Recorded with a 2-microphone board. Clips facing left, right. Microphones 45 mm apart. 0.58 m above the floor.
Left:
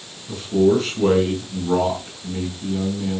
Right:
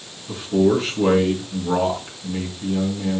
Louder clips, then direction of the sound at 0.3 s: Left 1 dB; 15° right (ahead or behind).